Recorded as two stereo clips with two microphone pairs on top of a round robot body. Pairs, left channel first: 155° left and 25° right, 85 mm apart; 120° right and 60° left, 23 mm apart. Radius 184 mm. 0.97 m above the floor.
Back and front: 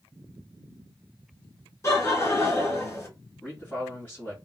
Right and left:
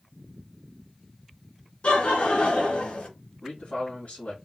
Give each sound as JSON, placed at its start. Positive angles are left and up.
{"t": 1.8, "sound": "laughter", "azimuth_deg": -145, "distance_m": 1.7}
{"t": 3.4, "sound": "a man speaking", "azimuth_deg": -135, "distance_m": 2.0}